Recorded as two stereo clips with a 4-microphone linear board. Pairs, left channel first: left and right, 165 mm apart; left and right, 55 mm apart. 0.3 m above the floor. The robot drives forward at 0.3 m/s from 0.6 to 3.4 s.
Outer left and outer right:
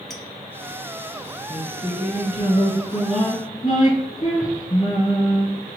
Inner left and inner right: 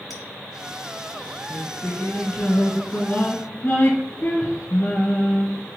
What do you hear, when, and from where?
0.1 s a clink: centre (ahead or behind), 0.9 m
1.5 s singing: 40° left (ahead or behind), 1.9 m; by 5.5 s 50° left (ahead or behind), 1.5 m